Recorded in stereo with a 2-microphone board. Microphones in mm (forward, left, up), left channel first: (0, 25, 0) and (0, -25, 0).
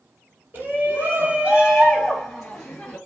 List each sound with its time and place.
0.5 s a shout: 40° right (ahead or behind), 2.5 m; by 3.0 s 10° left (ahead or behind), 2.5 m